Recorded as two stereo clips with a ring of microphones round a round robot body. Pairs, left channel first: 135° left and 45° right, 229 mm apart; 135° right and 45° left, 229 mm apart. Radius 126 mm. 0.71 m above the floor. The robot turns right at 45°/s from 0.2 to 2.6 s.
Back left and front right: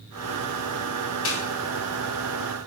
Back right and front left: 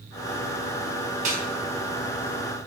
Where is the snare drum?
105° left, 3.5 m; by 1.4 s 110° left, 3.5 m.